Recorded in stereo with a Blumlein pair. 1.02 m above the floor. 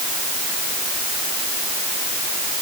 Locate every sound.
Only background noise.